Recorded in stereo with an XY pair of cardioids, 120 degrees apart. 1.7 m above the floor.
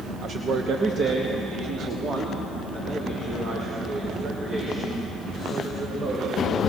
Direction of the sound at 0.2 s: 50° right.